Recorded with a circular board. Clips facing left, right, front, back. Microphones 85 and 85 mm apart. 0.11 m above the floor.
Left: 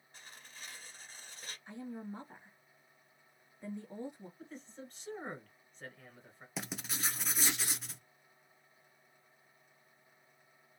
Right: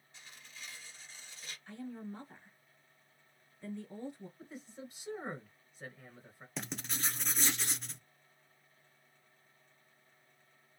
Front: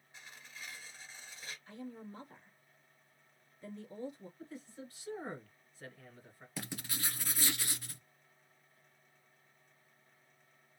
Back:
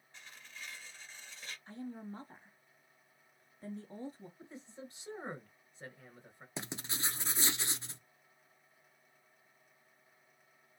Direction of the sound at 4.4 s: 160° right.